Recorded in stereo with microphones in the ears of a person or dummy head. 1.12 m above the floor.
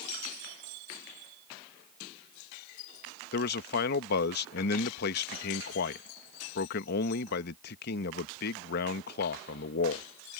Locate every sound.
3.3 s a man speaking: 60° left (ahead or behind)